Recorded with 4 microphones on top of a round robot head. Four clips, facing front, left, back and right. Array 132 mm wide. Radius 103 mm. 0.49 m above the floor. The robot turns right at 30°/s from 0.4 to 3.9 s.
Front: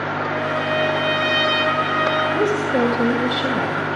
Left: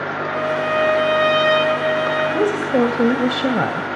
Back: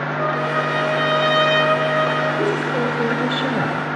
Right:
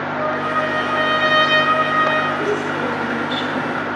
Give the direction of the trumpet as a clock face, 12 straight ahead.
4 o'clock.